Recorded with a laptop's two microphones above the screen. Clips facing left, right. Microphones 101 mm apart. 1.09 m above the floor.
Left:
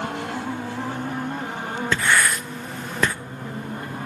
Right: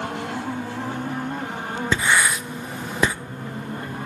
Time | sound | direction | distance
1.9 | writing | 10° right (ahead or behind) | 0.7 m